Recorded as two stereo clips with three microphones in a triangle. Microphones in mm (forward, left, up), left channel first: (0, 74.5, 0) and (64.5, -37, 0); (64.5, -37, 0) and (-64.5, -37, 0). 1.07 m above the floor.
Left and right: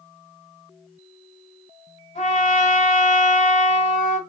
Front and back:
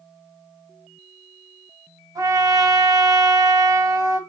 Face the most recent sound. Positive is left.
turn(degrees=120)